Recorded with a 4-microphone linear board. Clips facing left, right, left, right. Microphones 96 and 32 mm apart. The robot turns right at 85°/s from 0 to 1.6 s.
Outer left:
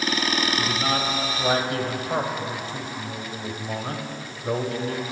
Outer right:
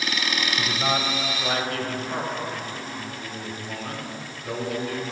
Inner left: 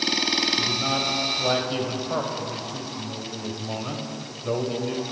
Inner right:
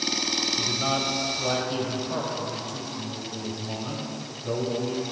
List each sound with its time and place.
0.6 s a man speaking: 45° right, 2.5 m; by 5.0 s 40° left, 2.5 m